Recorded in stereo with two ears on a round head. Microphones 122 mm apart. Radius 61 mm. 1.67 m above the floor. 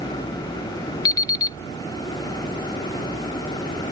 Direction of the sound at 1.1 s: 30° left (ahead or behind).